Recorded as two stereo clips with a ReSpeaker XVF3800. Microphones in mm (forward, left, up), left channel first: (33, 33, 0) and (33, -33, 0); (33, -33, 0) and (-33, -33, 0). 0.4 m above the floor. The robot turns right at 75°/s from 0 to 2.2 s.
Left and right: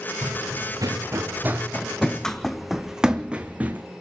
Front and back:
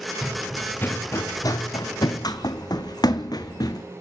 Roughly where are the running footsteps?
Right.